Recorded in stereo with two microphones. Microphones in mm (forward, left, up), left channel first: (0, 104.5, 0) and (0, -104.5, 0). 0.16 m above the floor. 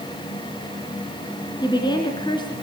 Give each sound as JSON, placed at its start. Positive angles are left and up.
{"t": 1.6, "sound": "a woman speaking", "side_deg": 25, "distance_m": 1.9}